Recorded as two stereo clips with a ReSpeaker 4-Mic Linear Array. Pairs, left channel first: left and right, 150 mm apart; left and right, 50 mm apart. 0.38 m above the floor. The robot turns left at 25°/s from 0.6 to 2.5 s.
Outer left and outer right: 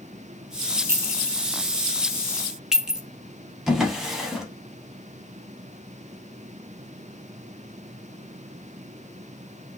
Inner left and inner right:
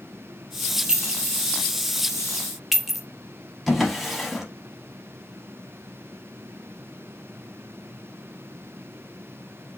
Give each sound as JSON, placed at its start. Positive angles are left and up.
{"t": 0.9, "sound": "a clink", "side_deg": -15, "distance_m": 0.5}
{"t": 3.7, "sound": "a drawer", "side_deg": -5, "distance_m": 0.6}